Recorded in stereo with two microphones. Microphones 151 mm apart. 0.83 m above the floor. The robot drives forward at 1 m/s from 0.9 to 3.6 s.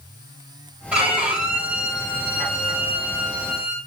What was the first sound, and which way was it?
A violin, 10° right (ahead or behind).